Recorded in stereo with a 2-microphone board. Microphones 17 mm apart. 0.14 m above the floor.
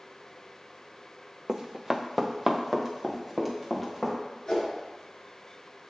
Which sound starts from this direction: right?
Running footsteps, at 1.5 s.